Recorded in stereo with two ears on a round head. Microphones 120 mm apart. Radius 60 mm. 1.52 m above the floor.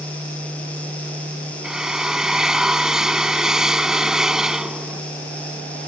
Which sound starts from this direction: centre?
A drill, at 1.6 s.